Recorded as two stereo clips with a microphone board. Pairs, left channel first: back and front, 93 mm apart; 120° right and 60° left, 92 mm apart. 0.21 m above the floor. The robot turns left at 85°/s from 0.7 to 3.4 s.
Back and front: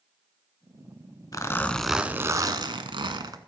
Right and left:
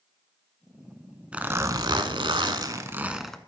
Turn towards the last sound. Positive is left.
turn(degrees=-40)